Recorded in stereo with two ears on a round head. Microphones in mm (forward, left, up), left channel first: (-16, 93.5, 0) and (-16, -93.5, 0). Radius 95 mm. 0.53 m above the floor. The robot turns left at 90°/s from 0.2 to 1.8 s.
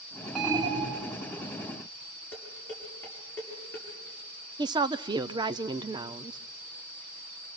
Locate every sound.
0.3 s an alarm: 5° left, 1.9 m; by 1.1 s 65° right, 1.9 m
2.3 s dishes clattering: 10° left (ahead or behind), 7 m
4.6 s a woman speaking: 20° right (ahead or behind), 0.7 m